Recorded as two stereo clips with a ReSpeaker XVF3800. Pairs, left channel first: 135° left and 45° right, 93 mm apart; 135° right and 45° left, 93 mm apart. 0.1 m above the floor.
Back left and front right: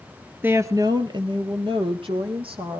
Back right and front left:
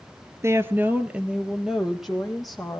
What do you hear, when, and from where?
0.4 s a woman speaking: 10° left, 1.4 m; by 2.8 s 45° right, 4.5 m